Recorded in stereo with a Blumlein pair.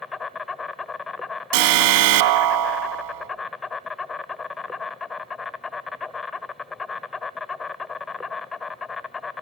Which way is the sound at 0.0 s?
15° left.